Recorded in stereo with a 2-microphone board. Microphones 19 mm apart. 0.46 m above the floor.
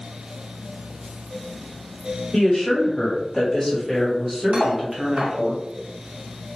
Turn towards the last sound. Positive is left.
turn(degrees=-70)  # may be behind; listen again after turning